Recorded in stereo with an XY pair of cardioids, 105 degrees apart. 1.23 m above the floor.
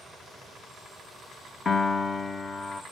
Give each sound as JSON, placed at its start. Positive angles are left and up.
{"t": 1.6, "sound": "a piano", "azimuth_deg": 40, "distance_m": 1.0}